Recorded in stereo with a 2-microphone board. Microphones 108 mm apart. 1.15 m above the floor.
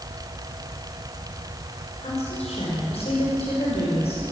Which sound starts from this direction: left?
A woman speaking, at 2.0 s.